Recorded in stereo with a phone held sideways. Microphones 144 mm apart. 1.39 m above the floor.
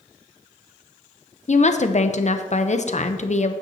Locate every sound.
1.5 s a woman speaking: 55° left (ahead or behind), 0.7 m